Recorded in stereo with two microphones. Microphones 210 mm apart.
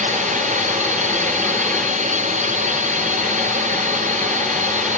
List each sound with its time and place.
0.0 s a drone: 35° right (ahead or behind)